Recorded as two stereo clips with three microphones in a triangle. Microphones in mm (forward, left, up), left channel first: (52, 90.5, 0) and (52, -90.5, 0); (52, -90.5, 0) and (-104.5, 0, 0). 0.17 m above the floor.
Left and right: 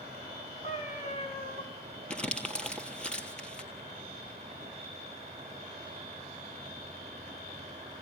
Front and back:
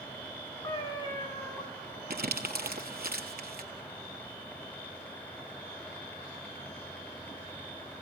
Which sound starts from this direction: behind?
Crumpling, at 2.1 s.